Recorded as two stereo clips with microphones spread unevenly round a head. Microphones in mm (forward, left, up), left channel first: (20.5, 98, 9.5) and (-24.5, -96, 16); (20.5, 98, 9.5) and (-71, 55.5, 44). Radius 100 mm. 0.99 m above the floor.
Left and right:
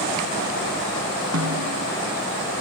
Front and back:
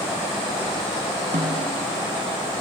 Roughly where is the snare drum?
Behind right.